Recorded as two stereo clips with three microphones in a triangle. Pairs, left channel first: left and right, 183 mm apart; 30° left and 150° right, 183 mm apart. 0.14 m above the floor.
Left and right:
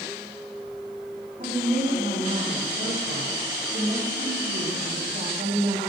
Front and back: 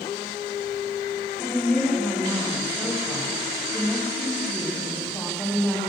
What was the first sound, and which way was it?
A woman speaking, 50° right.